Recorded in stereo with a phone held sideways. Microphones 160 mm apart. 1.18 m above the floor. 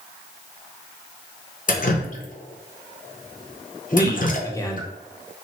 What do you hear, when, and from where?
1.7 s dripping: 55° left (ahead or behind), 0.6 m
3.9 s a man speaking: 20° left (ahead or behind), 0.5 m